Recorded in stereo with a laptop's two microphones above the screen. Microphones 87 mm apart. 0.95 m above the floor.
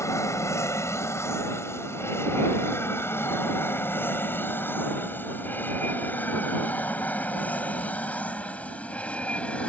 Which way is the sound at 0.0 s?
35° left (ahead or behind).